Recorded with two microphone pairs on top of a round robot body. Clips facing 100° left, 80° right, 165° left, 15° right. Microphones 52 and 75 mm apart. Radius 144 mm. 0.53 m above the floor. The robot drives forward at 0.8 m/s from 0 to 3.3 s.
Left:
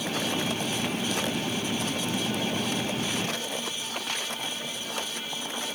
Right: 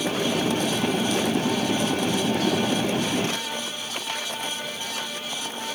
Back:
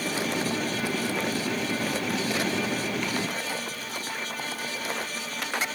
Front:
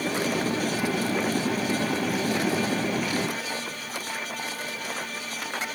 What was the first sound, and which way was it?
Only background noise.